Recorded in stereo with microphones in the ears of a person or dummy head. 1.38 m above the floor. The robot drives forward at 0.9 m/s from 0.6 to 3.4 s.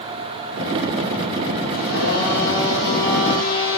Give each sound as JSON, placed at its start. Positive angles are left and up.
{"t": 1.7, "sound": "a blender", "side_deg": 65, "distance_m": 7.5}